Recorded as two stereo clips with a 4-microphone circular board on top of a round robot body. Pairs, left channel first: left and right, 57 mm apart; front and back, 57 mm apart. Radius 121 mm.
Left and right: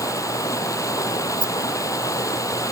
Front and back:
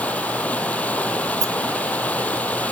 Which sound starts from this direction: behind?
A rattle, at 1.4 s.